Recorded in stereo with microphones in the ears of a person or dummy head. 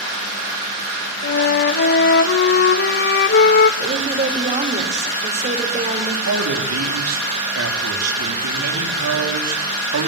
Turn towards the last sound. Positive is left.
turn(degrees=-85)